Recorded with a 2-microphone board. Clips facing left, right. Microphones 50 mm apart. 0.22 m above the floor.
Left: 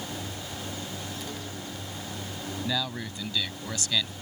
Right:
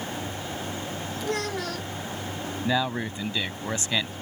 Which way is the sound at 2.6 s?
30° right (ahead or behind).